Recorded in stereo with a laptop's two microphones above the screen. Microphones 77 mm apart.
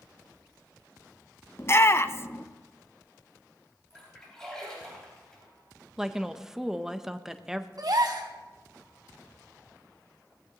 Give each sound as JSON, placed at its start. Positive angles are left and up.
{"t": 1.6, "sound": "a shout", "side_deg": 35, "distance_m": 0.7}
{"t": 3.9, "sound": "a splash", "side_deg": 10, "distance_m": 4.0}
{"t": 6.0, "sound": "a woman speaking", "side_deg": -5, "distance_m": 0.5}
{"t": 7.8, "sound": "a gasp", "side_deg": -60, "distance_m": 1.9}